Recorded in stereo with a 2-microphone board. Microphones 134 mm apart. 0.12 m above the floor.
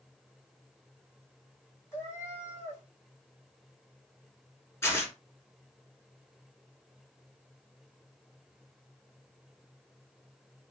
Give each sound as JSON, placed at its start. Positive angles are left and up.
{"t": 1.9, "sound": "a cat meowing", "side_deg": 20, "distance_m": 1.2}
{"t": 4.8, "sound": "tearing paper", "side_deg": 20, "distance_m": 1.0}